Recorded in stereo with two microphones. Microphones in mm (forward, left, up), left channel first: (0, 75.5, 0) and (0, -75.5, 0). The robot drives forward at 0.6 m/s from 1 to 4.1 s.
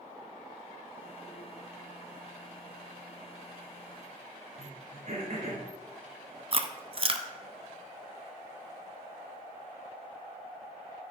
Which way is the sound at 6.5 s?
40° right (ahead or behind).